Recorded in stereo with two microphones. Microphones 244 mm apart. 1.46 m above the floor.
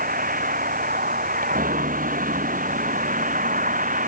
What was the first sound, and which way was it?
A vehicle, 35° right (ahead or behind).